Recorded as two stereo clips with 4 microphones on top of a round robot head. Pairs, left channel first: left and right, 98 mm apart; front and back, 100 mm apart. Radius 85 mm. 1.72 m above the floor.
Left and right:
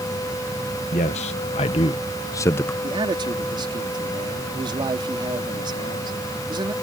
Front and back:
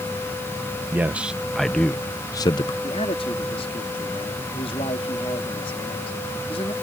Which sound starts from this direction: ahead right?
A man speaking, at 2.8 s.